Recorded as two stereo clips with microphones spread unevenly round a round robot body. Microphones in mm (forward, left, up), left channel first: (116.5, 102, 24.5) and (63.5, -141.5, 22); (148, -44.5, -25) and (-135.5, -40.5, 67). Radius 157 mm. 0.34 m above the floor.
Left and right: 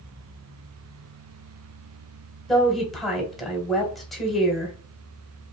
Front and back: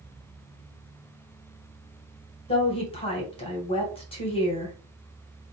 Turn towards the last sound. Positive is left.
turn(degrees=-10)